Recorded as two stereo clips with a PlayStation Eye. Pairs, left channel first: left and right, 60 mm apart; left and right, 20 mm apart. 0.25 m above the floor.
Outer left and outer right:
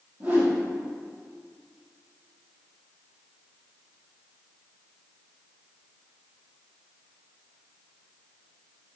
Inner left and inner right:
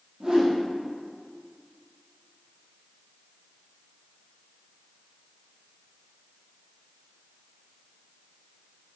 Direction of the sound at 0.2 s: 25° right (ahead or behind).